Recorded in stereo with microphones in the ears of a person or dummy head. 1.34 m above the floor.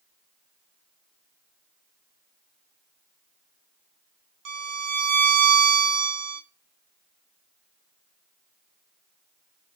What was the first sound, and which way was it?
A violin, 75° right (ahead or behind).